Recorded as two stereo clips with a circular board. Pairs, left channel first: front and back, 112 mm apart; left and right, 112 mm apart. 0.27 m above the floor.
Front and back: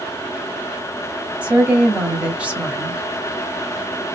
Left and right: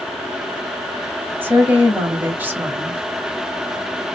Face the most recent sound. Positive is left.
turn(degrees=-125)